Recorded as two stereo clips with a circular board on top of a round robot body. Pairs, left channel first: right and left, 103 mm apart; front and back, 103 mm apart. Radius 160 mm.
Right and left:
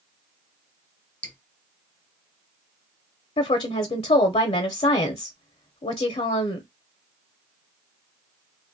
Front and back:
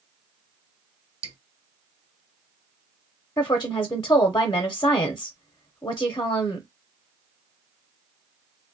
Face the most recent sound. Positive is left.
turn(degrees=-60)